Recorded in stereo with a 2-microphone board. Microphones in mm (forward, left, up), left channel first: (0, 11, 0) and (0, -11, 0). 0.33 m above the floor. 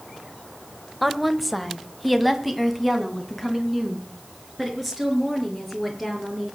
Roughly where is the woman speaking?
Centre.